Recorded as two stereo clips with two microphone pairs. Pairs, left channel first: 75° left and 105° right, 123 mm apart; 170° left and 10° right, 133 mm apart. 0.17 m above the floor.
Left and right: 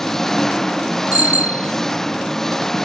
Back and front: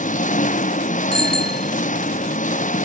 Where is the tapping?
I don't hear tapping.